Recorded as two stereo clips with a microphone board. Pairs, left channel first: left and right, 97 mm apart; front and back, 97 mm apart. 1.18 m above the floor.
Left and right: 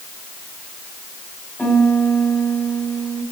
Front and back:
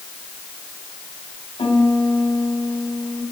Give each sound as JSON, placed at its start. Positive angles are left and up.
{"t": 1.6, "sound": "a piano", "azimuth_deg": 20, "distance_m": 1.6}